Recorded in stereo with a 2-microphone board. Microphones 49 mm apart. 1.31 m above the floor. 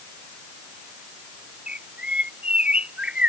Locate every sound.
1.7 s a bird: 25° right (ahead or behind)